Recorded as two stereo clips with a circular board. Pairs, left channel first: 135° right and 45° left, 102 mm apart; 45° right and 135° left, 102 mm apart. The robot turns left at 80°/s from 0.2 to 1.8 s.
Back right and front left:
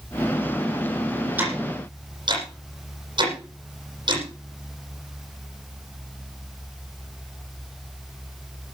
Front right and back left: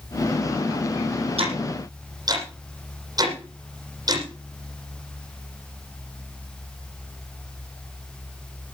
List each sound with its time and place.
1.4 s ticking: 120° left, 8.5 m; by 4.2 s 85° left, 8.5 m